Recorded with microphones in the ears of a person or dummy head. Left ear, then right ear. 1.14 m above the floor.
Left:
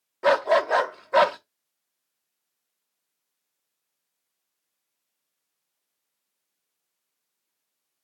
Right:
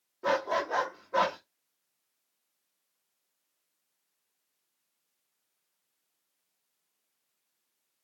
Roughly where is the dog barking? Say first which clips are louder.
Left 9 dB; left.